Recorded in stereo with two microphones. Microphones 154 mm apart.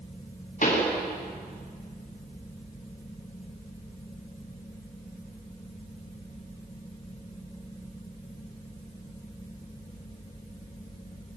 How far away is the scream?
No scream in this recording.